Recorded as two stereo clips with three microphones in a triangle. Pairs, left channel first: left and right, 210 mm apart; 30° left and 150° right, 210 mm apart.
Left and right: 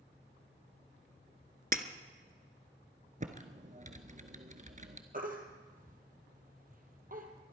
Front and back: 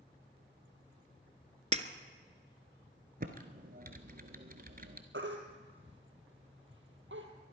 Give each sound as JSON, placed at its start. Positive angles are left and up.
{"t": 1.7, "sound": "breaking glass", "azimuth_deg": -110, "distance_m": 0.9}
{"t": 3.2, "sound": "typing on a keyboard", "azimuth_deg": -125, "distance_m": 1.2}
{"t": 5.1, "sound": "a baby crying", "azimuth_deg": -135, "distance_m": 2.0}